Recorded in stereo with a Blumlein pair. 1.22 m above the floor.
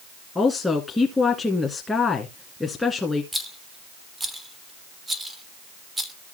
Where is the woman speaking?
10° left, 1.9 m.